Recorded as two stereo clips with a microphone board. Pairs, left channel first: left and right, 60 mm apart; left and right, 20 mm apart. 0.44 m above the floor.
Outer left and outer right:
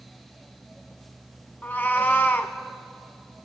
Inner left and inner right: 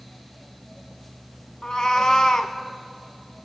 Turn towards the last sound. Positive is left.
turn(degrees=35)  # may be behind; listen again after turning